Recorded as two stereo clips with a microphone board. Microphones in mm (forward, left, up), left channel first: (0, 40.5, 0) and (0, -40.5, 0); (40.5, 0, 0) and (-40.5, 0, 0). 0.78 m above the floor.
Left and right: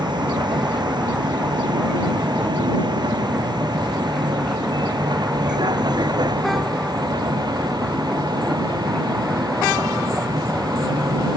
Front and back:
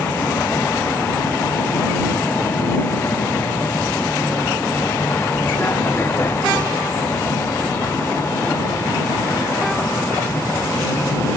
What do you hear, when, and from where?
0.0 s a vehicle: 65° right; by 11.4 s 55° right